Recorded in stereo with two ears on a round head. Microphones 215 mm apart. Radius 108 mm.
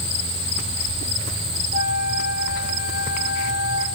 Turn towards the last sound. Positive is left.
turn(degrees=70)  # may be behind; listen again after turning